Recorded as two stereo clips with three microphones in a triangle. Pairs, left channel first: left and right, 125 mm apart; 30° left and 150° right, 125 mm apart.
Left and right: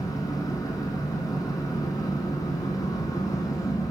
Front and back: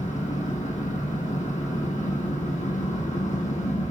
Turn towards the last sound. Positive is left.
turn(degrees=30)